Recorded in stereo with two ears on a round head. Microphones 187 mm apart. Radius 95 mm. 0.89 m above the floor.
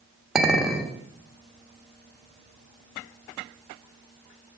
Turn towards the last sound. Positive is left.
turn(degrees=0)  # may be behind; listen again after turning